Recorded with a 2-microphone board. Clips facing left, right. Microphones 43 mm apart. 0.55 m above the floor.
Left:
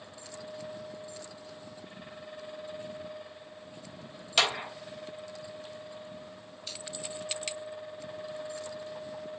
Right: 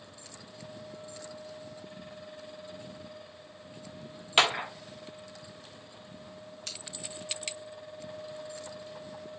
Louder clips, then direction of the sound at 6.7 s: Left 1 dB; 80° right.